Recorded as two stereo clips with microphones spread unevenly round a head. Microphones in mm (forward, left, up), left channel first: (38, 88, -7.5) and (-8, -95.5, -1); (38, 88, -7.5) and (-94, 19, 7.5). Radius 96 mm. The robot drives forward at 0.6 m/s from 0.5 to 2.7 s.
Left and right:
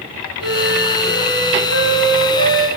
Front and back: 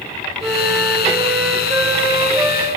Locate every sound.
0.4 s a flute: 120° left, 2.5 m; by 2.7 s 140° left, 3 m